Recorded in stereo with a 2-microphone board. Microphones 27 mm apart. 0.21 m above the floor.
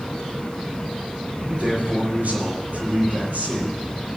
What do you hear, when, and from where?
1.5 s a man speaking: 75° right (ahead or behind), 7 m